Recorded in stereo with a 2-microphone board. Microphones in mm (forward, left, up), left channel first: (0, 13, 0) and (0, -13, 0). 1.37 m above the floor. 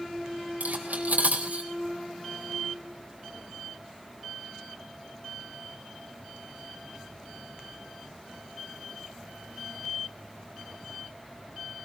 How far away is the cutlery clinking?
About 3.5 m.